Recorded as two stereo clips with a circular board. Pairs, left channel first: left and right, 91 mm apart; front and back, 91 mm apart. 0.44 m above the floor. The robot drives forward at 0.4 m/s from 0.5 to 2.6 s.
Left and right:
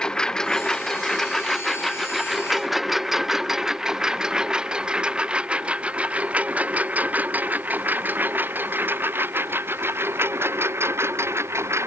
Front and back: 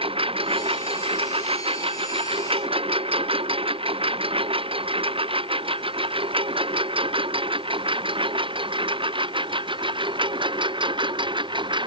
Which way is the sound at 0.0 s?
170° left.